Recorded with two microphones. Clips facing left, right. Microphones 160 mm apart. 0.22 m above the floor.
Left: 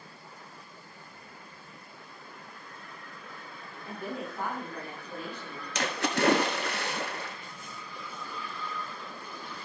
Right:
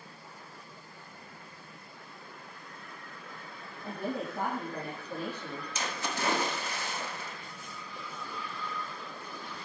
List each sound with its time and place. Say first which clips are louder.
3.8 s a woman speaking: right 2 dB; 40° right (ahead or behind), 5.5 m
5.8 s a splash: left 8 dB; 65° left (ahead or behind), 1.0 m